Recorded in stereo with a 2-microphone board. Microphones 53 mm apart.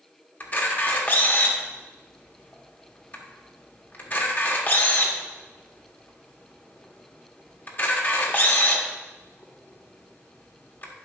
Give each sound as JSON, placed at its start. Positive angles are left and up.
{"t": 0.4, "sound": "a camera shutter", "side_deg": 35, "distance_m": 1.1}